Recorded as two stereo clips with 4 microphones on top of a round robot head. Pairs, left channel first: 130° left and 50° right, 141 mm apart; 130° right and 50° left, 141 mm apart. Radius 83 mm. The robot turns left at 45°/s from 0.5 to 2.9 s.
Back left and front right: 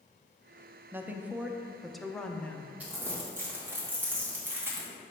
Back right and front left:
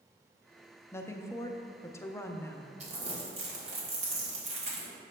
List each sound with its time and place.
0.9 s a woman speaking: 95° right, 0.6 m; by 2.7 s 175° right, 0.6 m
2.8 s crumpling: 25° left, 1.8 m; by 4.9 s 20° left, 1.8 m